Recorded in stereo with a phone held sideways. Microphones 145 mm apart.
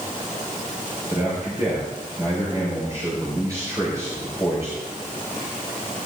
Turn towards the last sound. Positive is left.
turn(degrees=-20)  # may be behind; listen again after turning